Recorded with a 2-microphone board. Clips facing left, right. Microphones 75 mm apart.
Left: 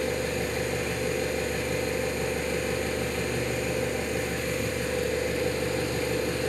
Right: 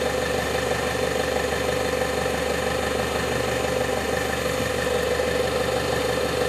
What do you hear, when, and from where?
0.0 s an engine running: 85° right, 2.5 m